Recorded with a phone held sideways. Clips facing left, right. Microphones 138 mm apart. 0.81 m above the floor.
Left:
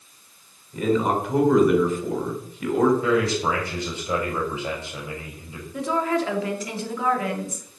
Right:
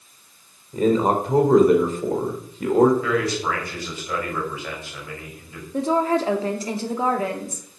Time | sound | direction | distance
0.7 | a man speaking | 35° right (ahead or behind) | 3 m
3.0 | a man speaking | 20° left (ahead or behind) | 5.5 m
5.7 | a woman speaking | 35° right (ahead or behind) | 2 m